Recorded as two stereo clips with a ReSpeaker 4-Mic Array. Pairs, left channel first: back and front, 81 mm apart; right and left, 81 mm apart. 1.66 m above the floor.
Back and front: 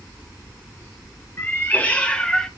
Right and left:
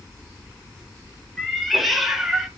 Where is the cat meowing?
175° right, 1.5 m; by 2.5 s 145° left, 1.3 m.